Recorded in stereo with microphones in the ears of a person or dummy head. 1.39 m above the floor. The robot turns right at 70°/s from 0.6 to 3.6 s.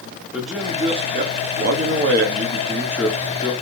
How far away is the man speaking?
About 2 m.